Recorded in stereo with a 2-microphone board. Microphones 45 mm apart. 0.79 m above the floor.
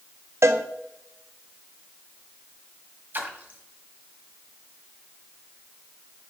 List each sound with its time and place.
0.4 s a cowbell: 80° right, 0.6 m
3.1 s a splash: 45° right (ahead or behind), 1.3 m